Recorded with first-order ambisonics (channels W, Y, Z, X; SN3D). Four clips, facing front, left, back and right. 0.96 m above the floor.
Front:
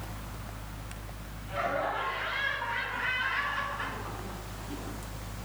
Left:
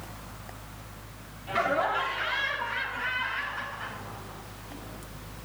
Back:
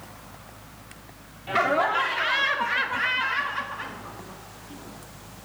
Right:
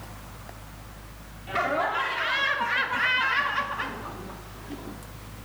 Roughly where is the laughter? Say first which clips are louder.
Right 1 dB, back 9 dB; behind.